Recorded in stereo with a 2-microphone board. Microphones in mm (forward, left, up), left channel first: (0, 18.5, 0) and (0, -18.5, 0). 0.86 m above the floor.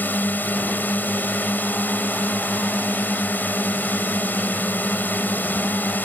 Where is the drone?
55° left (ahead or behind).